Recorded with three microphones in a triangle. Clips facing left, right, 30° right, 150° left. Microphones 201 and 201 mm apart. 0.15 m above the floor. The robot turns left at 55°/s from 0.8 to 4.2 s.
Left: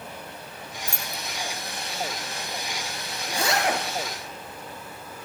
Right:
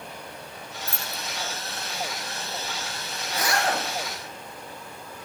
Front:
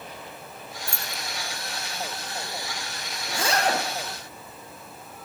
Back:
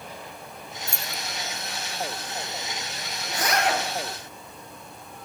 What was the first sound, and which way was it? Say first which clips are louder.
Keys jangling: even, back 1 dB; 15° right.